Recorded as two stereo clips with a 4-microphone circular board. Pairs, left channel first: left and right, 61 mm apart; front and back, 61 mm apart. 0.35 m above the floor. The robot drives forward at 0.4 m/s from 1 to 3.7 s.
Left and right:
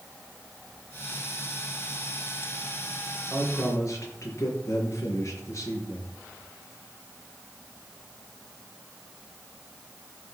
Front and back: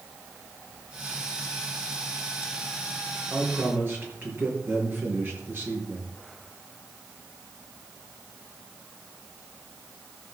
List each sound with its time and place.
3.3 s a man speaking: 125° left, 5 m; by 6.2 s 130° left, 5 m